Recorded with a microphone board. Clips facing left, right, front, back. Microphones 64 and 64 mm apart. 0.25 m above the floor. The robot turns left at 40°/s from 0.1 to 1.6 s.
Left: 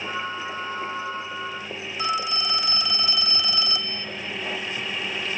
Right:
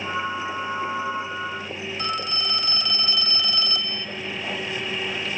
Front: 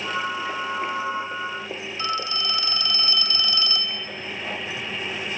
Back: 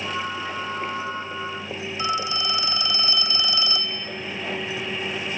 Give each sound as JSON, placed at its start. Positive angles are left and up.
{"t": 2.0, "sound": "a phone ringing", "azimuth_deg": 165, "distance_m": 0.6}